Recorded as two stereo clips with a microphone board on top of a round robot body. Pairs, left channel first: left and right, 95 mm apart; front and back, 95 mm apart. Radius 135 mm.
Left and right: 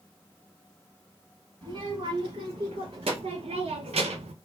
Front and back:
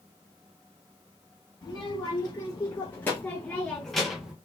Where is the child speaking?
60° right, 2.0 m; by 4.3 s 100° right, 0.8 m.